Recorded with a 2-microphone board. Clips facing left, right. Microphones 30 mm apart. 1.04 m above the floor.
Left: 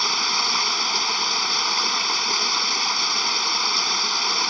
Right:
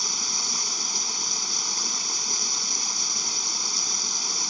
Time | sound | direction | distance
0.0 | running water | 40° left (ahead or behind) | ?